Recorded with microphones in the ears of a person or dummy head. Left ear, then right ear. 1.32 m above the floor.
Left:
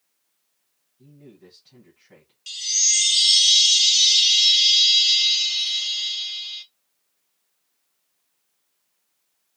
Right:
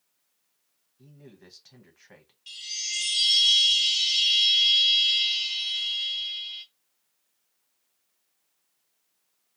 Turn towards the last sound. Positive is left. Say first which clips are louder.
# left 11 dB
turn(degrees=25)  # may be behind; listen again after turning